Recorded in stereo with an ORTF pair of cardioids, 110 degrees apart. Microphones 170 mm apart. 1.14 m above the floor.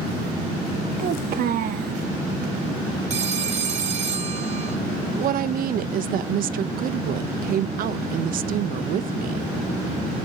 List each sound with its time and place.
1.0 s a child speaking: 60° right, 1.5 m
3.1 s a phone ringing: 40° right, 1.9 m
5.2 s a woman speaking: 55° right, 0.7 m